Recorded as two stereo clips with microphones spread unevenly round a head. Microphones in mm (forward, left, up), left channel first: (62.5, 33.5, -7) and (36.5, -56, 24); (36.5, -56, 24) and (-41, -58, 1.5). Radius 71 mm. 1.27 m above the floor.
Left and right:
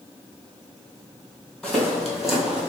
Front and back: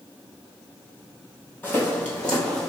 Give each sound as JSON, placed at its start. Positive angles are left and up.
{"t": 1.6, "sound": "footsteps", "azimuth_deg": -30, "distance_m": 1.7}